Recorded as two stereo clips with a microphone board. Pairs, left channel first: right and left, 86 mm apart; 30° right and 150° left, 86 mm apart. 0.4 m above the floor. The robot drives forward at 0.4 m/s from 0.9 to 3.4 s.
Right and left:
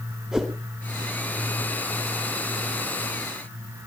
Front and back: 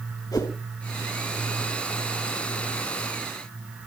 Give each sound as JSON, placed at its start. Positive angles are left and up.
{"t": 0.3, "sound": "a whoosh", "azimuth_deg": 10, "distance_m": 3.0}